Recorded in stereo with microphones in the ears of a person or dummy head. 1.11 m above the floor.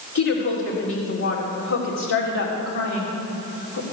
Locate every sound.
0.1 s a woman speaking: 65° left (ahead or behind), 4 m